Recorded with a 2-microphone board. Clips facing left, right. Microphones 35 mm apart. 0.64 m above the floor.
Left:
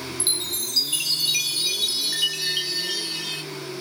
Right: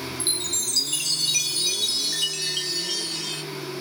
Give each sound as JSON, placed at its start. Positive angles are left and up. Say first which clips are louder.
{"t": 0.2, "sound": "a chime", "louder": "left 2 dB", "side_deg": 15, "distance_m": 0.9}